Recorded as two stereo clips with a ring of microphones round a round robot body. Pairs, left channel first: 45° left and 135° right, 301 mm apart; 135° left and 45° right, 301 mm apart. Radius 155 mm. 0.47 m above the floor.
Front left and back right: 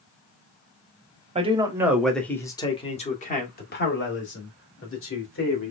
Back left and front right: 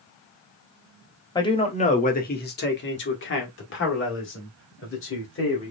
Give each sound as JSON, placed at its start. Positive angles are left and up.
{"t": 1.4, "sound": "a man speaking", "azimuth_deg": -170, "distance_m": 1.1}